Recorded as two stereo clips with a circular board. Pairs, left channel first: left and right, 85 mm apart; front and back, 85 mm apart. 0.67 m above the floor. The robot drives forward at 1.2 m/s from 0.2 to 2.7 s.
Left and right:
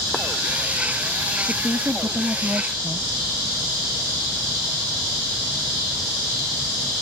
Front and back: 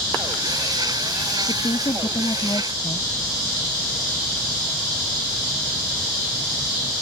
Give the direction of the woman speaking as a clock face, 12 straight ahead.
1 o'clock.